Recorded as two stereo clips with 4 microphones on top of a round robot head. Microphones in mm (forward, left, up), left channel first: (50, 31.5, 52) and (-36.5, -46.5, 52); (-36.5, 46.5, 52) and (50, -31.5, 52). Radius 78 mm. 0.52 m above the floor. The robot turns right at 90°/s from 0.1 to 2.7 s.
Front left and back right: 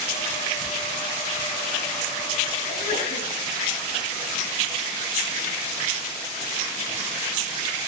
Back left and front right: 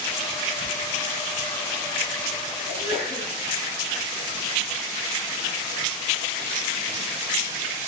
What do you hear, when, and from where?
2.7 s a sneeze: 35° left, 7 m